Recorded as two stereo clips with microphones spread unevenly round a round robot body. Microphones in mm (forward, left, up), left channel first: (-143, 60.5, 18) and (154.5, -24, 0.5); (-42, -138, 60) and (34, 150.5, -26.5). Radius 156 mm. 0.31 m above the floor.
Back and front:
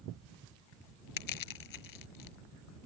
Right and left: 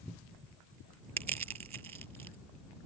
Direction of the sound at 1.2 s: 140° left.